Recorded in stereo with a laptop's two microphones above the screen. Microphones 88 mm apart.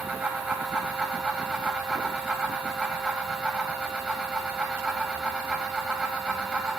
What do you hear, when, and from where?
0.0 s a fan: 15° right (ahead or behind), 2.0 m